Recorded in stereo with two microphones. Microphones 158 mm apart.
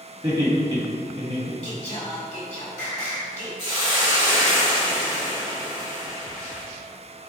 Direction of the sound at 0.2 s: 25° right (ahead or behind).